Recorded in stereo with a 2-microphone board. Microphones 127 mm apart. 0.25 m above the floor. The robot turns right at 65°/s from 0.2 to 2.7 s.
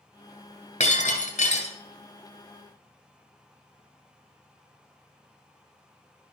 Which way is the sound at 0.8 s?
60° left.